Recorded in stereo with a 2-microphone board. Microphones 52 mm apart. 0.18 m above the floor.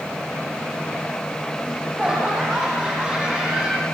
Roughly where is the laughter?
Centre.